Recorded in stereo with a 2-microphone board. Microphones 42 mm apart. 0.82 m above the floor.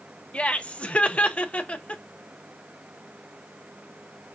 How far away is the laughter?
About 0.7 m.